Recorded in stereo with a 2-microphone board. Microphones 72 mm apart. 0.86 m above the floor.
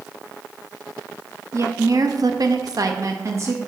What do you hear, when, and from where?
1.5 s a woman speaking: 45° right (ahead or behind), 0.8 m; by 3.6 s 40° right (ahead or behind), 1.0 m